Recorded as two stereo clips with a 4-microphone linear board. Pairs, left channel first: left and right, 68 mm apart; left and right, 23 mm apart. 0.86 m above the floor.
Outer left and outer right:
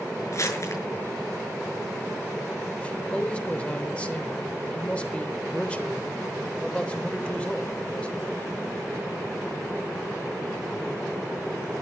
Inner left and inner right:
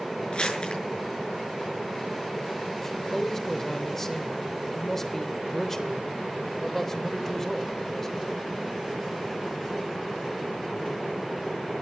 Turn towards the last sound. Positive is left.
turn(degrees=15)  # may be behind; listen again after turning